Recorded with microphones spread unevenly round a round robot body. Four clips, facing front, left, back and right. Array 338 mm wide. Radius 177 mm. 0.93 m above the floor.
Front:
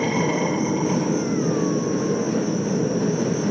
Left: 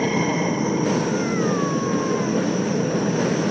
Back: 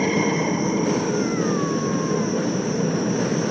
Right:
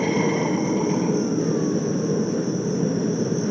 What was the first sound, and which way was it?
An insect, 20° right.